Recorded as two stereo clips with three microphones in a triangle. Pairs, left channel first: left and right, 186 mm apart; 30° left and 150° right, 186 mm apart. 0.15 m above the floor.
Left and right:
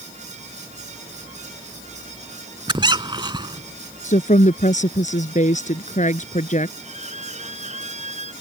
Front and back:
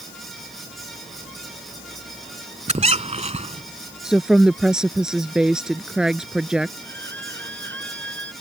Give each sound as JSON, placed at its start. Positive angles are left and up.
{"t": 2.7, "sound": "a squeak", "azimuth_deg": -135}
{"t": 4.0, "sound": "a woman speaking", "azimuth_deg": 125}
{"t": 6.8, "sound": "a violin", "azimuth_deg": -145}